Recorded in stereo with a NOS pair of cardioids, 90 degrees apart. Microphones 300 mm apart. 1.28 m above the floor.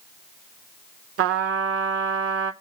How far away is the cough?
I don't hear a cough.